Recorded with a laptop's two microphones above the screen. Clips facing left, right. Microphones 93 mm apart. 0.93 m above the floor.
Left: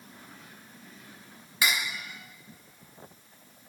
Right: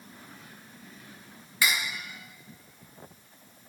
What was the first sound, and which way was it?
Cutlery clinking, 25° left (ahead or behind).